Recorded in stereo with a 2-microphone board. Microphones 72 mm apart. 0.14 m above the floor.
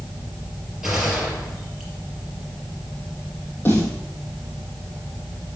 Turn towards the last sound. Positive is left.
turn(degrees=30)  # may be behind; listen again after turning